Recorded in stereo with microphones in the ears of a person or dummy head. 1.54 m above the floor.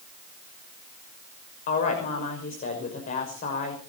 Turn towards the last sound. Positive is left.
turn(degrees=40)  # may be behind; listen again after turning